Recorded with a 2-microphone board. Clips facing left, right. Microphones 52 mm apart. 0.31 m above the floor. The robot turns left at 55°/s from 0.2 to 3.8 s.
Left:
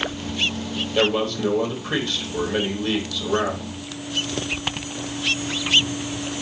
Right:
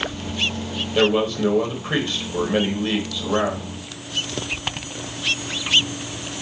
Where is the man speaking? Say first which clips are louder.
Right 3 dB; 5° right (ahead or behind), 1.4 m.